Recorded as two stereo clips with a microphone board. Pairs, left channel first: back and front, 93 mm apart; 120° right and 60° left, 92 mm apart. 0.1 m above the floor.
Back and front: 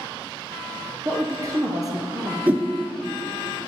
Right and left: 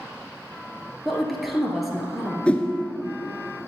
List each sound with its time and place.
1.1 s a woman speaking: 30° right, 1.5 m
2.5 s a whoosh: 55° right, 0.9 m